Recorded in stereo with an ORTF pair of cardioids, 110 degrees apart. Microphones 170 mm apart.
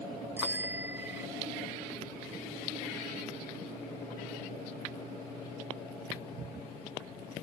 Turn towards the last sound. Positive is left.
turn(degrees=-15)